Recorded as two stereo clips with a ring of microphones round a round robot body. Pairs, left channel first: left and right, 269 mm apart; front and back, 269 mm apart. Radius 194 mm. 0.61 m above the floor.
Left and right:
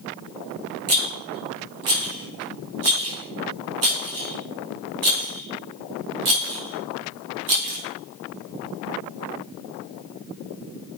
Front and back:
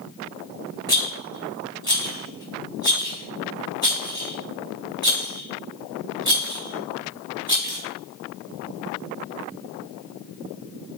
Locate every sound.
0.9 s a rattle: 100° right, 3.5 m